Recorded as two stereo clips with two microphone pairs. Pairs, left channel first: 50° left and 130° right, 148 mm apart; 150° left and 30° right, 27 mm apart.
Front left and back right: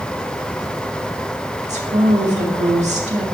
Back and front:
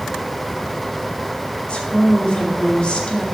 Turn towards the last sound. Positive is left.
turn(degrees=-165)